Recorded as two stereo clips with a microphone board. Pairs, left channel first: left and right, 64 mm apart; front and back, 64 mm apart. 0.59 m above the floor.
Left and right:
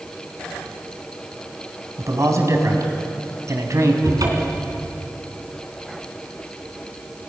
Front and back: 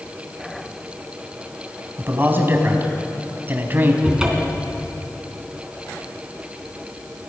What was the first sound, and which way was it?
A man speaking, 125° right.